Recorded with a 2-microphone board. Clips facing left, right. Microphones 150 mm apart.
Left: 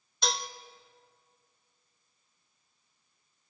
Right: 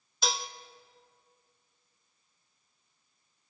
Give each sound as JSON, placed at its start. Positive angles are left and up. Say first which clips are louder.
{"t": 0.2, "sound": "dishes clattering", "louder": "even", "side_deg": 0, "distance_m": 0.9}